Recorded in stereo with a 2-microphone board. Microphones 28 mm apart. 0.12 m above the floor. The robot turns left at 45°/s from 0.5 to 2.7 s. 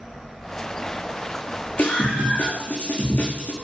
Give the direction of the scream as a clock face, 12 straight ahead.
8 o'clock.